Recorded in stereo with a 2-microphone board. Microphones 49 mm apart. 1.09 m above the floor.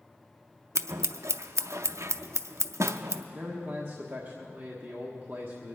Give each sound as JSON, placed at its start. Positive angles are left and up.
{"t": 0.8, "sound": "scissors", "side_deg": -75, "distance_m": 0.5}
{"t": 3.3, "sound": "a man speaking", "side_deg": -35, "distance_m": 1.4}